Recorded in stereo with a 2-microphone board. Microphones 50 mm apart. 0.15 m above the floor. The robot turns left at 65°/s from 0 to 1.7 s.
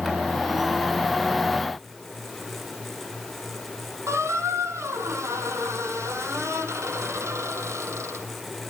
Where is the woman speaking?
No woman speaking in this recording.